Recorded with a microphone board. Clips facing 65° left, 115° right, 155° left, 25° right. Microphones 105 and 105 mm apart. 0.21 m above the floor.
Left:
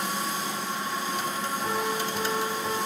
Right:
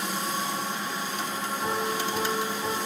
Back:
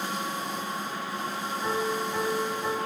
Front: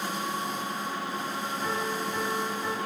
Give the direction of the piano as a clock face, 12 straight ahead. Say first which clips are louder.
Right 1 dB, back 3 dB; 4 o'clock.